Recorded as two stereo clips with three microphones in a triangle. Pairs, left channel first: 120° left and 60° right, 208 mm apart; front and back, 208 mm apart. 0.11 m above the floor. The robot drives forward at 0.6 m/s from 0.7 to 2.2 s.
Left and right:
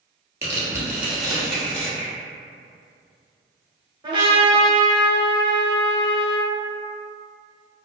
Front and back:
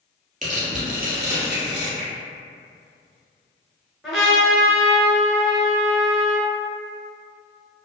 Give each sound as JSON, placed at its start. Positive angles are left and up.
{"t": 0.4, "sound": "tearing paper", "azimuth_deg": -135, "distance_m": 1.0}
{"t": 2.0, "sound": "a finger snap", "azimuth_deg": -165, "distance_m": 2.0}
{"t": 4.0, "sound": "a trumpet", "azimuth_deg": -90, "distance_m": 1.0}